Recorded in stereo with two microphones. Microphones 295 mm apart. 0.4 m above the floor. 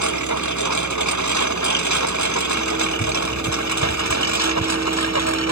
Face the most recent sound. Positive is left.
turn(degrees=65)  # may be behind; listen again after turning